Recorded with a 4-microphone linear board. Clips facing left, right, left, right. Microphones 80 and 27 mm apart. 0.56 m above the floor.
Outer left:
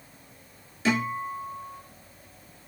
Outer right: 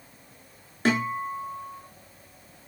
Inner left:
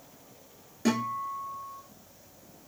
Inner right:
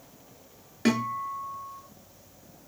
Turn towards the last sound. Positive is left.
turn(degrees=-50)  # may be behind; listen again after turning